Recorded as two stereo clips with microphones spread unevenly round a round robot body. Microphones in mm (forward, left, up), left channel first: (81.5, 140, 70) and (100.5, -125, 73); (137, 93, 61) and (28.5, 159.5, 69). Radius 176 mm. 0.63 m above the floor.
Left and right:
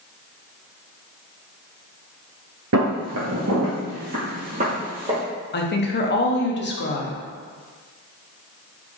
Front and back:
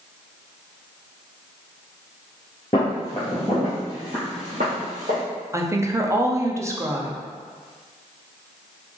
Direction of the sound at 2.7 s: 95° right.